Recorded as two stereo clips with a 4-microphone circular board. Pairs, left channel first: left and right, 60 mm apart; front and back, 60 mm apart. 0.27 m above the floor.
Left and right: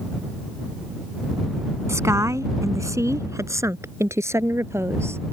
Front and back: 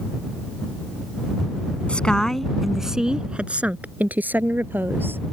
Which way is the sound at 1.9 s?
65° right.